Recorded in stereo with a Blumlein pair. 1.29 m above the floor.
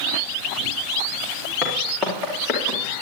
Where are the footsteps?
10° left, 4.5 m; by 2.8 s 20° left, 5 m.